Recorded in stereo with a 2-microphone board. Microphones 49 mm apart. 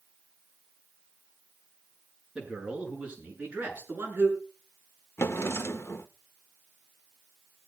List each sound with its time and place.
2.4 s a man speaking: 15° right (ahead or behind), 8 m; by 4.4 s 40° right (ahead or behind), 7.5 m
5.2 s a drawer: 55° left (ahead or behind), 0.7 m